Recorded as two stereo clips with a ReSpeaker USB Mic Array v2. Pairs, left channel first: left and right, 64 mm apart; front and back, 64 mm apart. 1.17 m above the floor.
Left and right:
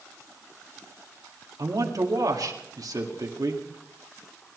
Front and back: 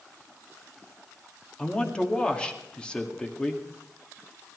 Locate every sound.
1.6 s a man speaking: 75° right, 2 m